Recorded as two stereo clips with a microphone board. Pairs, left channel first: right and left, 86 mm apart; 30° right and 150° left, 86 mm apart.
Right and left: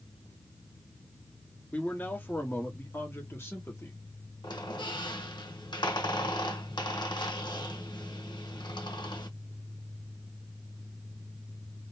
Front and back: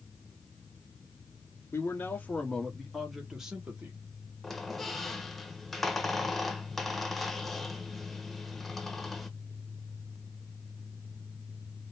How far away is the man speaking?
About 1.1 m.